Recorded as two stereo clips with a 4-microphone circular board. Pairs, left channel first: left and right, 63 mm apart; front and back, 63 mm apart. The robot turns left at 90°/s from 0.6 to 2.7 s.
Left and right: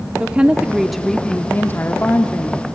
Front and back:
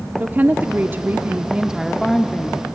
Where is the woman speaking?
150° right, 0.8 m; by 2.7 s 25° left, 0.8 m.